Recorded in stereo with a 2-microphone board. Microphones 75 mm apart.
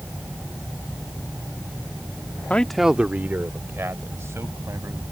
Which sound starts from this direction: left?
A man speaking, at 2.5 s.